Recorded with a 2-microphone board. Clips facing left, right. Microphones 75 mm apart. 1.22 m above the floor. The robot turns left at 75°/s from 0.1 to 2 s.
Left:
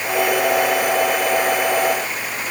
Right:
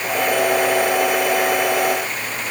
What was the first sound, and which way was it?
Only background noise.